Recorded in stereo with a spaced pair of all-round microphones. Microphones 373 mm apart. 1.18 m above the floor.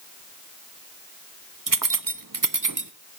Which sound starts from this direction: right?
Keys jangling, at 1.7 s.